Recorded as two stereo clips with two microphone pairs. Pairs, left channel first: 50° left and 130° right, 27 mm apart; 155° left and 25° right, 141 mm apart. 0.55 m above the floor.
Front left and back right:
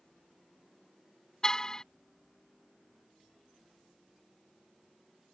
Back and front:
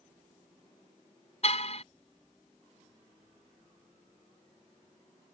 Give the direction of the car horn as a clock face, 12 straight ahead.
8 o'clock.